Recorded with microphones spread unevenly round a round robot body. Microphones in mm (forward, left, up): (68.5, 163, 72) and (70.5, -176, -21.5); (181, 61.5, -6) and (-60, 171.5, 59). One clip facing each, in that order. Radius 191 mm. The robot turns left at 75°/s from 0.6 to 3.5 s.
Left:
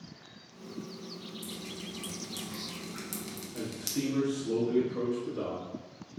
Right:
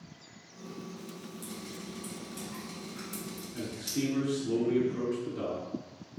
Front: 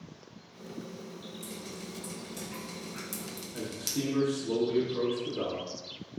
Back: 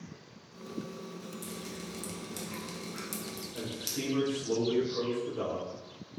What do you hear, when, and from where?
1.4 s dripping: 160° right, 1.1 m; by 4.0 s 45° left, 1.1 m
3.5 s a man speaking: 10° right, 1.4 m